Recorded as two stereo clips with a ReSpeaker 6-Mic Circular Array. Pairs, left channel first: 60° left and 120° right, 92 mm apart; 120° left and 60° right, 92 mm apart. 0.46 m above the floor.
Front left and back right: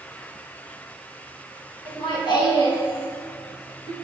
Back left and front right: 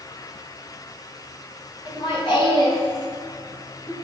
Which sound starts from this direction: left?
Laughter, at 1.9 s.